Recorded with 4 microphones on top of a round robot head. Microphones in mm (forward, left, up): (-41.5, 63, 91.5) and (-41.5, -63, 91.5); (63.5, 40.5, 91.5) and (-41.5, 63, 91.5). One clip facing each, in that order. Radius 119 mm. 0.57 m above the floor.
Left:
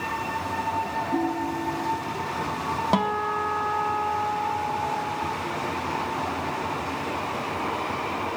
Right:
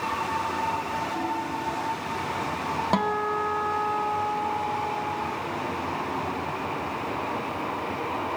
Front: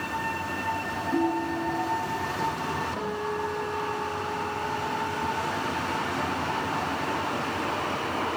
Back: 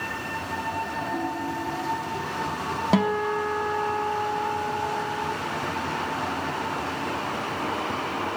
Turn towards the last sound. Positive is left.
turn(degrees=175)